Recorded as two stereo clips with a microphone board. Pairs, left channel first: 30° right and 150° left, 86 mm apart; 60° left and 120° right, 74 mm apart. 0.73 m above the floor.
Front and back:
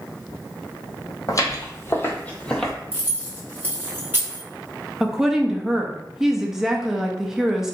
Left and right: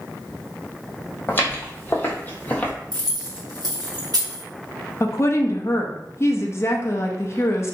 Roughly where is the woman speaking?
Left.